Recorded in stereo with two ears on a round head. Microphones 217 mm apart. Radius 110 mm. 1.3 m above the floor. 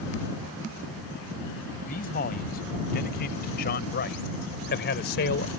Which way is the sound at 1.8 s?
35° left (ahead or behind).